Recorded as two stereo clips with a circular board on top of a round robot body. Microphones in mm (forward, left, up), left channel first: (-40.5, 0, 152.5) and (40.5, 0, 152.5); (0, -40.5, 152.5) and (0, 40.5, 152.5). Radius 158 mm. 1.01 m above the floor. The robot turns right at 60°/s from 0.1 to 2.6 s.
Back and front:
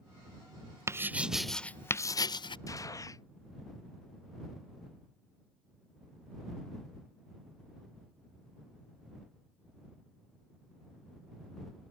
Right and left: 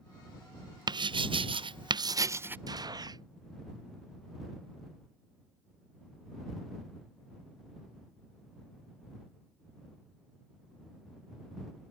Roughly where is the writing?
Ahead left.